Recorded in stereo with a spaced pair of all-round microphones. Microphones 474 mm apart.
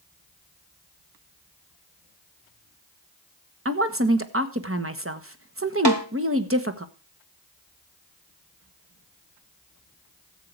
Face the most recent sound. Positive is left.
turn(degrees=-55)  # may be behind; listen again after turning